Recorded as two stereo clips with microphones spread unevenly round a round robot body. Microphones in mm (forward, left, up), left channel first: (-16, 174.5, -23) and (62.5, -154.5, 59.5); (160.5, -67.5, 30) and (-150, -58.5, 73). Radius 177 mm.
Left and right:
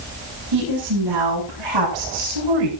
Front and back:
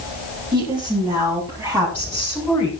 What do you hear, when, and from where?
0.5 s a woman speaking: 105° right, 7.5 m; by 2.7 s 95° right, 7.5 m